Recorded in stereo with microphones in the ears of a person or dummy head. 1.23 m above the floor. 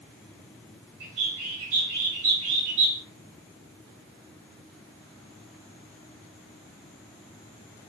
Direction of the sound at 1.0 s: 80° right.